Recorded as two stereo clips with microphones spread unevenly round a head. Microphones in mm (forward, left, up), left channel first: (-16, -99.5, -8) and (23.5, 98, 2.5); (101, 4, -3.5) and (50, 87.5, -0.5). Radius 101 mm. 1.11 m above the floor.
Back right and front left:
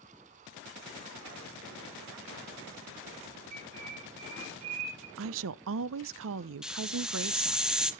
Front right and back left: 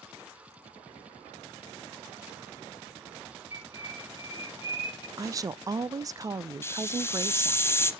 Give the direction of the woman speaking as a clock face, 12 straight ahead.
10 o'clock.